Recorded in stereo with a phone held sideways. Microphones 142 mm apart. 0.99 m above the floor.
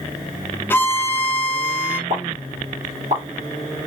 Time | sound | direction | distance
0.7 | a violin | 15° left (ahead or behind) | 0.5 m
2.1 | a pop | 50° right (ahead or behind) | 2.0 m